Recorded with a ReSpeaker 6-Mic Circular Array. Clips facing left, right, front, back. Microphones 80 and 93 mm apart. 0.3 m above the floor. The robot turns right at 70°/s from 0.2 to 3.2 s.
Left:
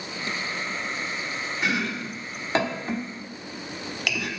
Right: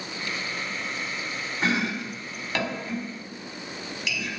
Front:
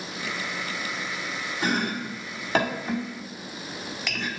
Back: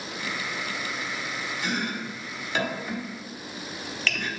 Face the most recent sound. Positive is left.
turn(degrees=75)